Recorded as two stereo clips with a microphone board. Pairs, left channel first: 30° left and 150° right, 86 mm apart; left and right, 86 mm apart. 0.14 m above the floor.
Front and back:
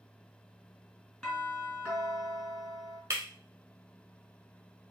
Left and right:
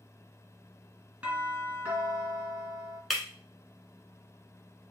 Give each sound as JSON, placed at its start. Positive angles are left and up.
{"t": 1.2, "sound": "a doorbell", "azimuth_deg": -45, "distance_m": 2.0}
{"t": 3.1, "sound": "breaking glass", "azimuth_deg": 175, "distance_m": 1.0}